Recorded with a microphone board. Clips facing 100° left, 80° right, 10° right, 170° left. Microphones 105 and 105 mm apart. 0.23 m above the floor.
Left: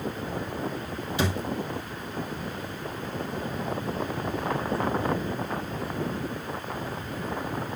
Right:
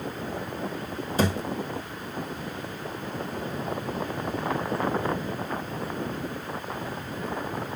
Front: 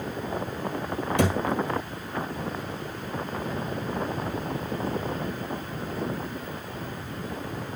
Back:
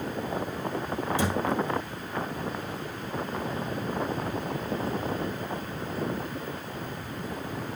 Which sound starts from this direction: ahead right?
A thud, at 1.2 s.